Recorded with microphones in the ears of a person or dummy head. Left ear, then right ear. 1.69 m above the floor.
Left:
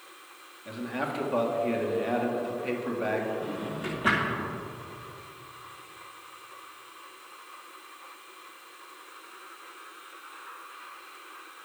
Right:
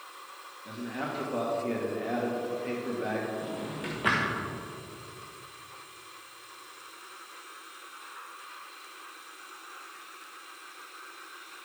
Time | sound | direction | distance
0.7 | a man speaking | 25° left (ahead or behind) | 1.7 m
3.4 | a drawer | 10° right (ahead or behind) | 1.0 m